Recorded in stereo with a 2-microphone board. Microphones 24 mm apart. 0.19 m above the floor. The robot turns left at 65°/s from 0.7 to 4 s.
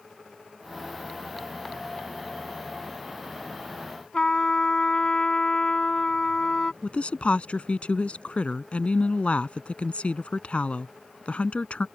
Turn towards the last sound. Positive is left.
turn(degrees=55)  # may be behind; listen again after turning